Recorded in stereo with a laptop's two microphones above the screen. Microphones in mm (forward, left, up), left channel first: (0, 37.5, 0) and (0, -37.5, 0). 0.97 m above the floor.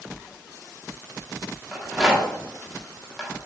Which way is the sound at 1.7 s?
10° right (ahead or behind).